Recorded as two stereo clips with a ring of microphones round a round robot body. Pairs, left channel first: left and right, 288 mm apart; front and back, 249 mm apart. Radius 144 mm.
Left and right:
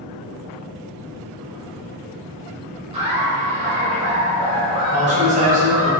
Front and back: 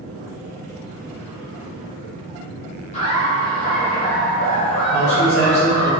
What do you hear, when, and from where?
2.9 s laughter: 40° right, 0.9 m
4.9 s a man speaking: 45° right, 0.8 m